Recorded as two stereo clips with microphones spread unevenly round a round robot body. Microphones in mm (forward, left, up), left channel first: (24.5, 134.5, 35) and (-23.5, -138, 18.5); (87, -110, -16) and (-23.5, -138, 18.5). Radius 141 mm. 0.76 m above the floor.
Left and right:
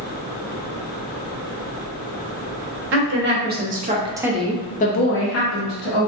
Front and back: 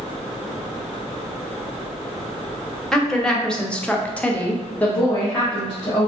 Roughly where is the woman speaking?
Ahead right.